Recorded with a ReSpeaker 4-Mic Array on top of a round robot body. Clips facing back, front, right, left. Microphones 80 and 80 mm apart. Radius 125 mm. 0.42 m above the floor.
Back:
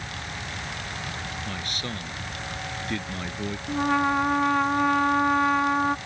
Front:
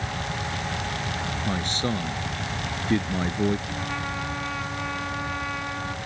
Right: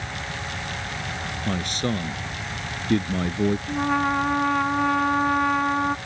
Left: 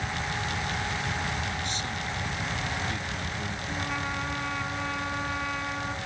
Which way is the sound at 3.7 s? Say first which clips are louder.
Back 8 dB, right 10 dB; 135° right.